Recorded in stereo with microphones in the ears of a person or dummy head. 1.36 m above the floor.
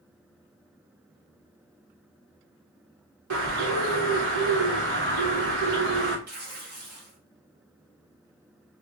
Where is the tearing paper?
55° right (ahead or behind), 1.2 m.